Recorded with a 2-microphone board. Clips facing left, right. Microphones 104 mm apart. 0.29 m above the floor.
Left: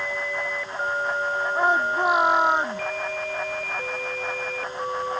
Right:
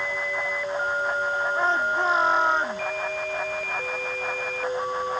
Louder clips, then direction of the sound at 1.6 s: Left 4 dB; 15° left (ahead or behind).